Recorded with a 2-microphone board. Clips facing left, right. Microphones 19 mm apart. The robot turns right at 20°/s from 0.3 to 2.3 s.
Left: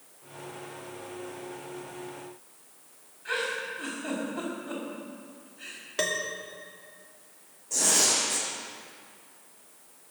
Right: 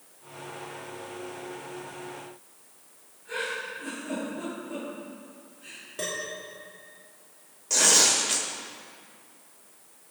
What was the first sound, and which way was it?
A giggle, 85° left.